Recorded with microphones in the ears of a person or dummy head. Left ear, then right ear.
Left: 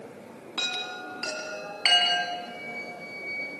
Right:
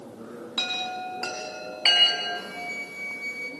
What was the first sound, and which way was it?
A chime, 5° right (ahead or behind).